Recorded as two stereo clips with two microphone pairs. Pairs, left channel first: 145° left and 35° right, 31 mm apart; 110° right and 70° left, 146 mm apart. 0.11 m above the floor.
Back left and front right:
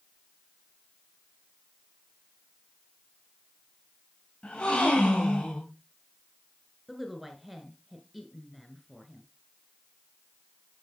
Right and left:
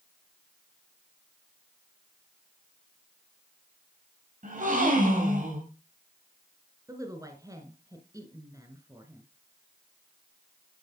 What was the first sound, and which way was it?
A gasp, 95° left.